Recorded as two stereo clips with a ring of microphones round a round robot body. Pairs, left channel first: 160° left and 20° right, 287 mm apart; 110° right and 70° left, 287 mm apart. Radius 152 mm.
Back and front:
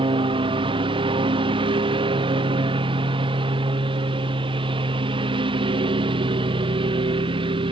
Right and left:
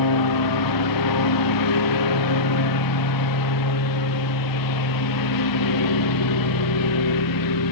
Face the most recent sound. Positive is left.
turn(degrees=-95)